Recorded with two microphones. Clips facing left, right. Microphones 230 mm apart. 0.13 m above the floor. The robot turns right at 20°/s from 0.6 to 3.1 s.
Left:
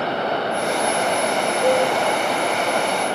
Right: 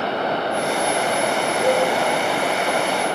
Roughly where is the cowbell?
Left.